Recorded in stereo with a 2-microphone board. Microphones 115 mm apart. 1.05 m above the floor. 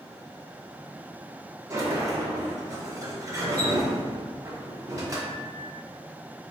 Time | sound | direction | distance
1.7 | a sliding door | 30° right (ahead or behind) | 0.8 m